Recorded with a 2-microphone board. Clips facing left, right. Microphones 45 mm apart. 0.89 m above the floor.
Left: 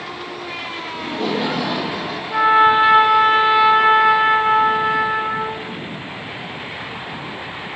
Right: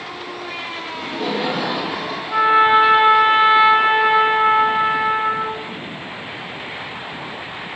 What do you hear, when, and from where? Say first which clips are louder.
0.9 s laughter: left 1 dB; 10° left (ahead or behind), 1.4 m; by 2.2 s 50° right (ahead or behind), 1.7 m
2.3 s a trumpet: even; 25° right (ahead or behind), 0.7 m